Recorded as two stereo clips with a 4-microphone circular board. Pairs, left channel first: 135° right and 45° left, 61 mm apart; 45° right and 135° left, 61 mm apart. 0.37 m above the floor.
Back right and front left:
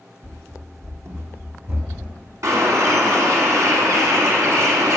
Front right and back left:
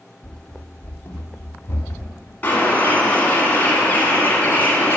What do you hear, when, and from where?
0.2 s running footsteps: 30° left, 0.9 m; by 2.3 s 5° right, 1.8 m
2.4 s a bird: 15° left, 1.6 m